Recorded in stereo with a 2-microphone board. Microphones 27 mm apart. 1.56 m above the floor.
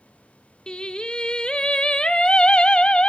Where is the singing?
30° left (ahead or behind), 0.6 m.